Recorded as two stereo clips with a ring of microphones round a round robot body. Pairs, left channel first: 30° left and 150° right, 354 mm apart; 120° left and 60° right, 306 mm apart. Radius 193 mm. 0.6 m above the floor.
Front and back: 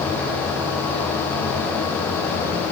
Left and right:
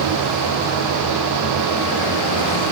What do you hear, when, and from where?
Only background noise.